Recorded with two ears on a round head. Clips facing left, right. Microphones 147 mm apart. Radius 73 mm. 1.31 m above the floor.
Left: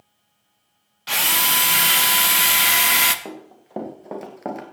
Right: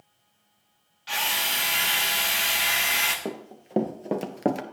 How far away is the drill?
About 1.2 m.